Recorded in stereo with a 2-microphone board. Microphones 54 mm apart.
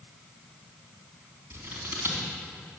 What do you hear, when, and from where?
1.5 s scissors: 40° right (ahead or behind), 3.5 m